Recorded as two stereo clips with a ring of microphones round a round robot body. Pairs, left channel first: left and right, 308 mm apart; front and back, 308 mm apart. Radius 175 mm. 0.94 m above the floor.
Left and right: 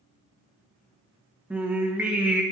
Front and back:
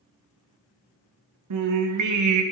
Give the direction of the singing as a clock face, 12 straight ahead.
6 o'clock.